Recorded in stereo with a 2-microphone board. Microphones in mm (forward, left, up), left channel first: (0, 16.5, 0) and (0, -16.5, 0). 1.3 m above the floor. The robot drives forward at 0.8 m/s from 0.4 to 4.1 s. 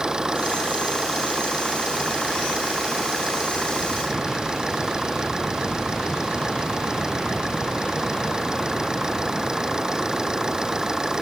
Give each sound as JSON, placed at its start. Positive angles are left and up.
{"t": 0.0, "sound": "an engine running", "side_deg": -20}